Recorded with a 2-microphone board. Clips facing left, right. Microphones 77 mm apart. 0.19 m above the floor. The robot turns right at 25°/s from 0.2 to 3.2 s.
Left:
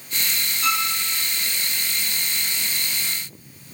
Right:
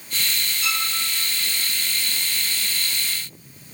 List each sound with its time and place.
0.6 s a violin: 35° left (ahead or behind), 3 m; by 0.9 s 45° left (ahead or behind), 3 m